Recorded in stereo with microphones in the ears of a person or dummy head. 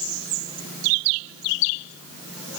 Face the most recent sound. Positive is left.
No sound to turn to.